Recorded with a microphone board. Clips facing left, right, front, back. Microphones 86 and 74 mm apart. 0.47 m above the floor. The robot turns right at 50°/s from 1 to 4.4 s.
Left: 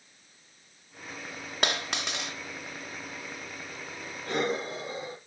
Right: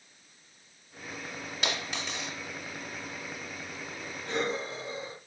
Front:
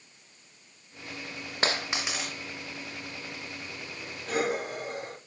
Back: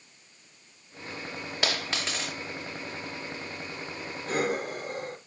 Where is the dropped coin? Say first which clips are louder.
Left 4 dB, front 2 dB; 55° left, 2.5 m; by 2.4 s 95° left, 2.5 m.